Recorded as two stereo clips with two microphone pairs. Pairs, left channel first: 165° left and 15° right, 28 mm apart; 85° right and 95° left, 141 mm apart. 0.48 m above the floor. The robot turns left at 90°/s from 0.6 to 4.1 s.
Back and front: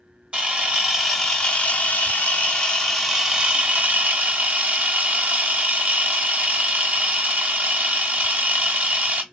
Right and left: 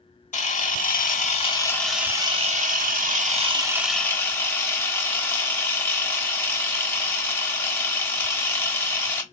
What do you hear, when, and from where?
0.3 s a camera shutter: 60° right, 0.9 m; by 9.2 s 15° right, 0.9 m